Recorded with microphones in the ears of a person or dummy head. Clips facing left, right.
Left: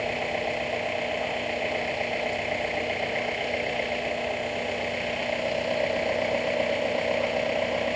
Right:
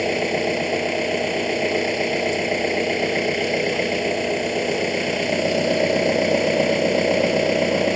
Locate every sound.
0.0 s an engine running: 60° right (ahead or behind)